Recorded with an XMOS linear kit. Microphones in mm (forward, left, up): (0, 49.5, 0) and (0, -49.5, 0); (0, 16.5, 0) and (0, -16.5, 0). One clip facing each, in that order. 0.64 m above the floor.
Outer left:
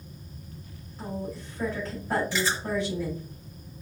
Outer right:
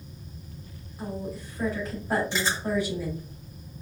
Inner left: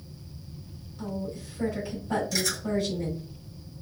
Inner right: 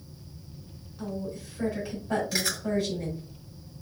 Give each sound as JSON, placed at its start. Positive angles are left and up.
{"t": 1.0, "sound": "a woman speaking", "side_deg": -10, "distance_m": 2.5}
{"t": 2.3, "sound": "chewing", "side_deg": -25, "distance_m": 1.9}